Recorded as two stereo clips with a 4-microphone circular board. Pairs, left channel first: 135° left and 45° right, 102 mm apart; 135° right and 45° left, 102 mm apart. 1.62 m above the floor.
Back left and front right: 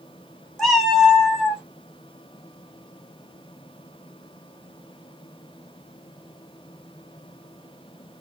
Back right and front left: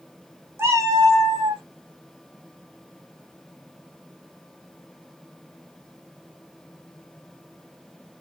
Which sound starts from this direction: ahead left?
A cat meowing, at 0.6 s.